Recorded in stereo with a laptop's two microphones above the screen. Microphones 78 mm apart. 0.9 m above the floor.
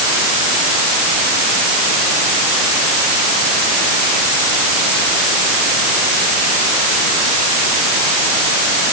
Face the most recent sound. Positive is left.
No sound to turn to.